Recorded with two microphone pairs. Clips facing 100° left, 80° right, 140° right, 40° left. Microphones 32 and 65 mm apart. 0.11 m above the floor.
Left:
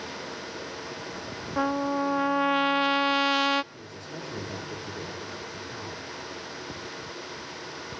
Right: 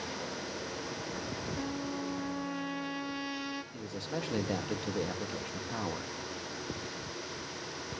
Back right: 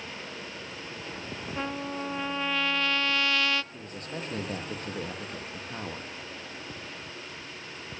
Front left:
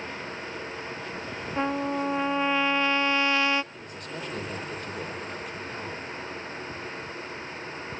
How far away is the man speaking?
About 3 m.